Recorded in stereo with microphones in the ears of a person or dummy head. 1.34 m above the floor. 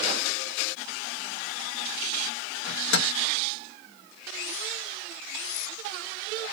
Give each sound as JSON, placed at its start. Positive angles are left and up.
{"t": 2.7, "sound": "a microwave", "side_deg": 60, "distance_m": 1.2}